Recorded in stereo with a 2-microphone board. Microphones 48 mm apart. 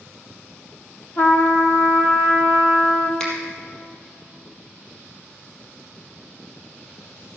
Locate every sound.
1.2 s a trumpet: 55° left (ahead or behind), 1.6 m
3.2 s a finger snap: 10° left (ahead or behind), 4 m